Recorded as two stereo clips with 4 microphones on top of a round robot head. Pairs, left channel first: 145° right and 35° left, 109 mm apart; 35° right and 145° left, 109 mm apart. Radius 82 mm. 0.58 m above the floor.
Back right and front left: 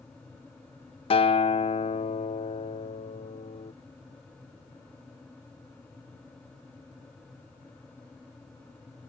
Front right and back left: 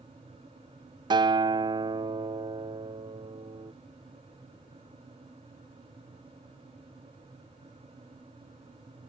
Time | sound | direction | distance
1.1 | a guitar | 170° right | ?